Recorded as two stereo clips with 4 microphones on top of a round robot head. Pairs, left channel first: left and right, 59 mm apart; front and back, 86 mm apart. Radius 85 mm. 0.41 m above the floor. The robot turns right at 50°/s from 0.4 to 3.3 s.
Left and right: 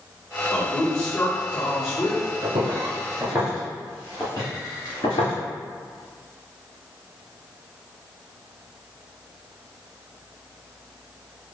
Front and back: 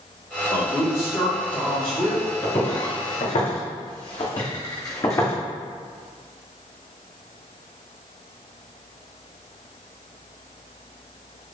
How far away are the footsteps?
About 1.5 m.